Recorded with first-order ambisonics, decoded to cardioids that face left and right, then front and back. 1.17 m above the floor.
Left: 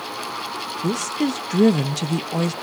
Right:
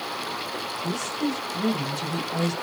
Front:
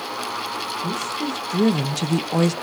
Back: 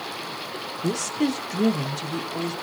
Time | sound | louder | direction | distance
0.8 | a woman speaking | left 6 dB, even | 115° left | 0.8 m